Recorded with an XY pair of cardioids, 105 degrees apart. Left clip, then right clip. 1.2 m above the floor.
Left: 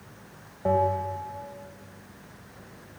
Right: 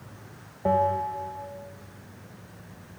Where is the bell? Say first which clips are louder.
Right 1 dB; 10° right, 2.5 m.